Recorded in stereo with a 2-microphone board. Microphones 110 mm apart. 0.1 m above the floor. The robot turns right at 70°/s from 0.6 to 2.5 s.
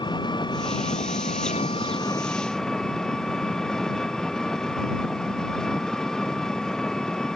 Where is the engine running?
40° left; by 7.4 s 175° left.